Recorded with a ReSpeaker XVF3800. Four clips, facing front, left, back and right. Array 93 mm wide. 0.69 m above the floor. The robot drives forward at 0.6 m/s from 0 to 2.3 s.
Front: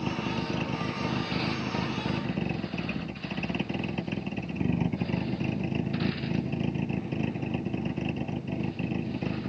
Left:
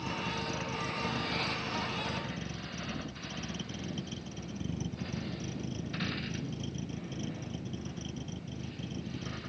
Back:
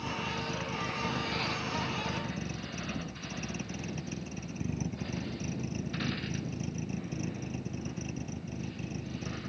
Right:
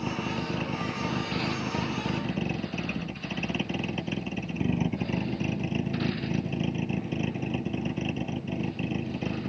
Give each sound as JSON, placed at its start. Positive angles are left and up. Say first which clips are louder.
{"t": 0.0, "sound": "a vehicle", "louder": "right 5 dB, front 4 dB", "azimuth_deg": -40}